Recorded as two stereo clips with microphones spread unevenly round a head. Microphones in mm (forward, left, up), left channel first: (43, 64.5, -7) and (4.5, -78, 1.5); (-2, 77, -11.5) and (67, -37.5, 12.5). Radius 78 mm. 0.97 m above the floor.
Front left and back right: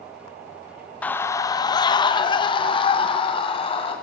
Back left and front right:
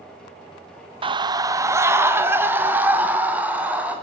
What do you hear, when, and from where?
1.0 s a scream: 5° right, 0.7 m; by 3.9 s 20° left, 3.5 m